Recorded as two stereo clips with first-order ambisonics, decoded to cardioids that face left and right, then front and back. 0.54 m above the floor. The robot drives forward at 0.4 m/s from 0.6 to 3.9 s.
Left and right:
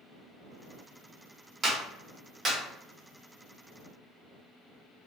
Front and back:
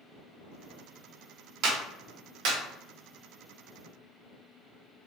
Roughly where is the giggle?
No giggle in this recording.